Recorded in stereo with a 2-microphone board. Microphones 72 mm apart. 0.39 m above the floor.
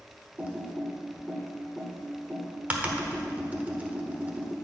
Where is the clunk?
No clunk in this recording.